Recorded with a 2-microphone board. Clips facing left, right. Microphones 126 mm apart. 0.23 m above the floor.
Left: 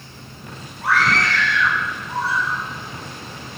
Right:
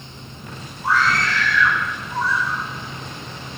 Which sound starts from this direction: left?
A scream, at 0.8 s.